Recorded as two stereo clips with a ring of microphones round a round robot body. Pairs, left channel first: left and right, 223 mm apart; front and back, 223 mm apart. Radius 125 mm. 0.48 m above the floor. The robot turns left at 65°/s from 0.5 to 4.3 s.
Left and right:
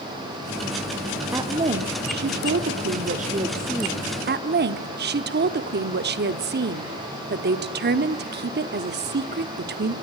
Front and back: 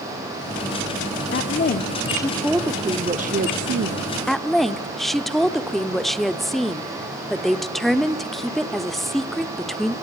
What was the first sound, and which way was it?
A woman speaking, 15° right.